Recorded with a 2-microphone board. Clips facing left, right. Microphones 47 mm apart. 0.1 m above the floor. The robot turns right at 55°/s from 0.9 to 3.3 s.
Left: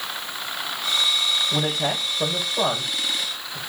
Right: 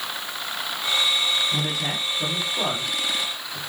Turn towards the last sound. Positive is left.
turn(degrees=-15)  # may be behind; listen again after turning